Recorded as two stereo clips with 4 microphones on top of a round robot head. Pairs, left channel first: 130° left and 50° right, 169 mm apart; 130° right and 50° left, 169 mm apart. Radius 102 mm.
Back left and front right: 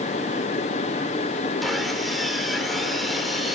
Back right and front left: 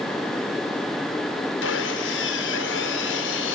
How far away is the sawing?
About 4 m.